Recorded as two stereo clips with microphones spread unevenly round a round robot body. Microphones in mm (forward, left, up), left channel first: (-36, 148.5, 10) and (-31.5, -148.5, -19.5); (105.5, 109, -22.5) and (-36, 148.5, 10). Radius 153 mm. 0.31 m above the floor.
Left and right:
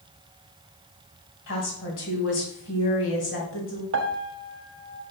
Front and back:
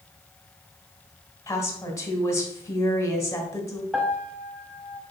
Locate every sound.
1.5 s a woman speaking: 45° left, 2.5 m
3.9 s a piano: 100° right, 0.7 m